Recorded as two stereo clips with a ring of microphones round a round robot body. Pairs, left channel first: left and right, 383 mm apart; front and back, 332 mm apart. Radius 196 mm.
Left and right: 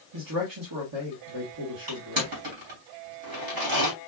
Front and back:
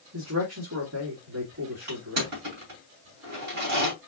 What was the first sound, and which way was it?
A man speaking, 130° right.